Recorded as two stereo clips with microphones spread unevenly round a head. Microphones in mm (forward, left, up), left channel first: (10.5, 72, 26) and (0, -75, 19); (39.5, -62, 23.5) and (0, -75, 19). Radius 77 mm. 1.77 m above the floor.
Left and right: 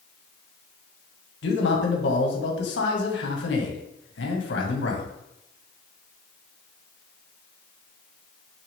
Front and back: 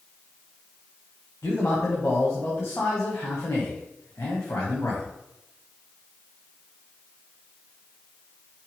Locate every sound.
1.4 s a man speaking: 80° left, 2.5 m